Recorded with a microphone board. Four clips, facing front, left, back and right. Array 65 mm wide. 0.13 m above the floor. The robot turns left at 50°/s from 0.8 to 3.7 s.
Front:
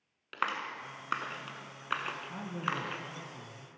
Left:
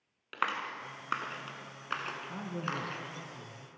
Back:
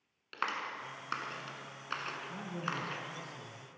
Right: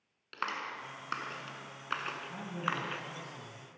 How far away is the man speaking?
About 1.1 m.